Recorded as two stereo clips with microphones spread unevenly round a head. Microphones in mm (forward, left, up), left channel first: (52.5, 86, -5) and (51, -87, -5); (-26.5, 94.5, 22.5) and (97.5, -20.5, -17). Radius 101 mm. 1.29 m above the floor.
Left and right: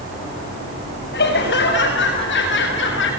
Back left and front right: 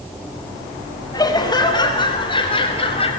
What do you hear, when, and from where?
1.1 s laughter: 70° left, 5.5 m; by 3.1 s 80° left, 6 m